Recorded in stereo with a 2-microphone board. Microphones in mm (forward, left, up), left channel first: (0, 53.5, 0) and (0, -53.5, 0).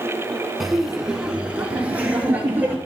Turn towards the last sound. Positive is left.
turn(degrees=-15)  # may be behind; listen again after turning